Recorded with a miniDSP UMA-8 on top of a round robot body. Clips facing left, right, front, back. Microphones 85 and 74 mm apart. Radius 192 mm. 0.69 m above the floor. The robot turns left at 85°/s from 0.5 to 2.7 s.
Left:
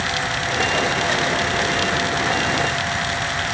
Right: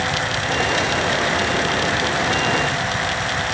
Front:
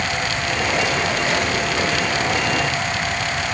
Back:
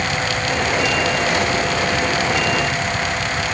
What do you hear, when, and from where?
Only background noise.